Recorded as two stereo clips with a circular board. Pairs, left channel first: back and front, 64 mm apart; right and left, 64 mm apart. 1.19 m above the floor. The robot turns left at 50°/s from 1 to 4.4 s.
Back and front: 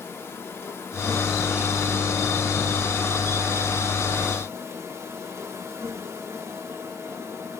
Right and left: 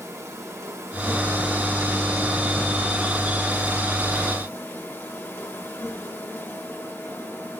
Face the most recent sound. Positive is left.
turn(degrees=-40)